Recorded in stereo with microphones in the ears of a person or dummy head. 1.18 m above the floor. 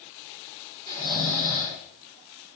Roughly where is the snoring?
Left.